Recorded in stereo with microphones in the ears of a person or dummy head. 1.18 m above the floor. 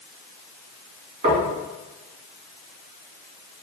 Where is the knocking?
30° right (ahead or behind), 1.8 m.